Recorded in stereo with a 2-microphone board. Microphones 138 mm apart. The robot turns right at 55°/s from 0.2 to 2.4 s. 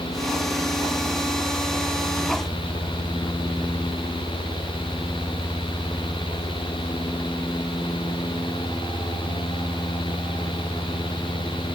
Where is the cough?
I don't hear a cough.